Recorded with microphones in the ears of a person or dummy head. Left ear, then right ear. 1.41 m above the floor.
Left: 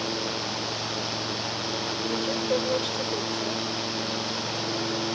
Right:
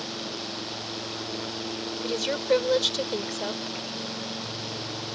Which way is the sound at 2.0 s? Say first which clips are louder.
Right 4 dB; 55° right (ahead or behind).